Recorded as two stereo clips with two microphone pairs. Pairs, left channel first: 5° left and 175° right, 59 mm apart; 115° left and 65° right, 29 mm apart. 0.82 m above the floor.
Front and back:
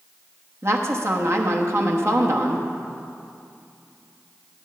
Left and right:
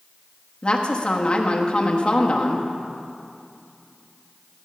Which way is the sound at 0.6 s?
160° left.